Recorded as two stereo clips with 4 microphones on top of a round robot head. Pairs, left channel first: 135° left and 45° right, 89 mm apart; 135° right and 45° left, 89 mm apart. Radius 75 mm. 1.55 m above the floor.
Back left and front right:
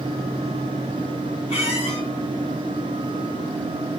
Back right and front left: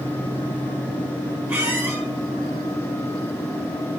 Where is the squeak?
110° left, 4 m.